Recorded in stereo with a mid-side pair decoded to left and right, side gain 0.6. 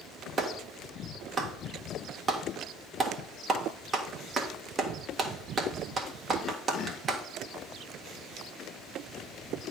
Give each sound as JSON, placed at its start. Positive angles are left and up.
{"t": 0.4, "sound": "a clap", "azimuth_deg": -30, "distance_m": 1.6}